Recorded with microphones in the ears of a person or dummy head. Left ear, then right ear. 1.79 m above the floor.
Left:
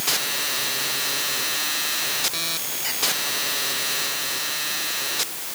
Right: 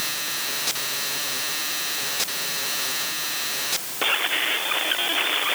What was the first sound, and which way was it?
Only background noise.